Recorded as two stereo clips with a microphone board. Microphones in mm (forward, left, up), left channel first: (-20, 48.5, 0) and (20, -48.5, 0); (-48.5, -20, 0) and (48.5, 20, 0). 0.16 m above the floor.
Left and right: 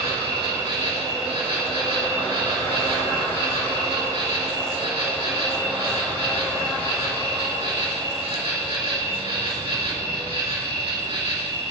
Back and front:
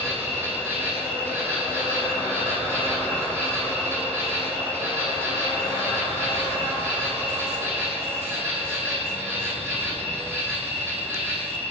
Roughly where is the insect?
Ahead right.